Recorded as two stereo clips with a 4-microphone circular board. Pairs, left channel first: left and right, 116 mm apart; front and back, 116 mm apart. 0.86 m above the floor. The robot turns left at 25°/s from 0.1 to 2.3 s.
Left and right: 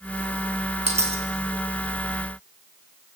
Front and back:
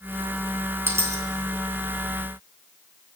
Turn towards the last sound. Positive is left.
turn(degrees=-145)